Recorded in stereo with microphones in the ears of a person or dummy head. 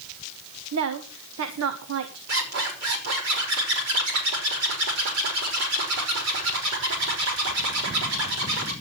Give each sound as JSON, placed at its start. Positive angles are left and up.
{"t": 0.7, "sound": "a woman speaking", "side_deg": -80, "distance_m": 1.5}
{"t": 2.3, "sound": "a zipper", "side_deg": -90, "distance_m": 5.5}